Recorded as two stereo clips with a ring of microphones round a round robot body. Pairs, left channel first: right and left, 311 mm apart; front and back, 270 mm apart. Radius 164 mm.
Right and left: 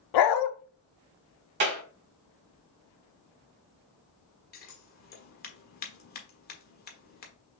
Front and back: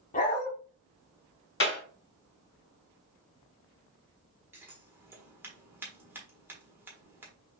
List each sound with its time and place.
0.1 s a dog barking: 65° right, 0.6 m
1.6 s a clap: 40° left, 2.5 m
4.5 s scissors: 105° right, 1.3 m